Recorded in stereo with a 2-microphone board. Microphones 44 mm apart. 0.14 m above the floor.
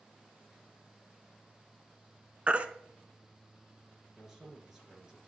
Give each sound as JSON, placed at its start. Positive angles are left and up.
{"t": 2.5, "sound": "a baby crying", "side_deg": -30, "distance_m": 0.5}
{"t": 4.2, "sound": "a man speaking", "side_deg": -10, "distance_m": 2.5}